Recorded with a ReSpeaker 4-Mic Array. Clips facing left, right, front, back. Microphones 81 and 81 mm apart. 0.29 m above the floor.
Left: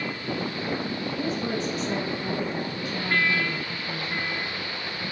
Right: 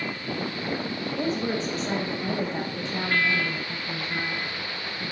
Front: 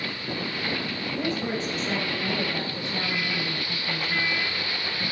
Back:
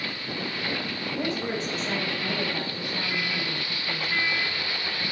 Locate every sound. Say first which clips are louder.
1.2 s a woman speaking: right 2 dB, front 1 dB; 110° right, 1.5 m; by 5.1 s 15° right, 2 m